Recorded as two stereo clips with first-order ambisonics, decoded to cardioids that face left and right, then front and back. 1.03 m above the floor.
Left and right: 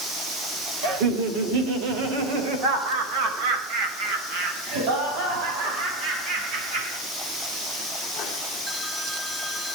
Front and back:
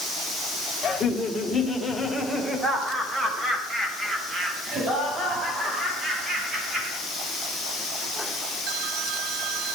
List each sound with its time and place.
0.8 s laughter: 65° right, 2.5 m; by 7.0 s 110° right, 8 m